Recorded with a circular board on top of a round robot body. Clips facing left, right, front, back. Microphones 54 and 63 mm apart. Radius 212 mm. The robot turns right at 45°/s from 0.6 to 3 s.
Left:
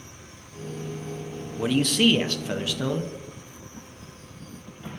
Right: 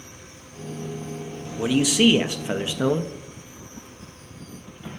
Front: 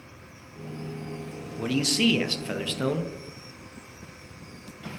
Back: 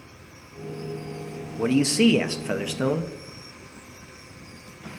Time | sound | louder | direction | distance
1.6 | a man speaking | right 2 dB, back 5 dB | 175° right | 0.7 m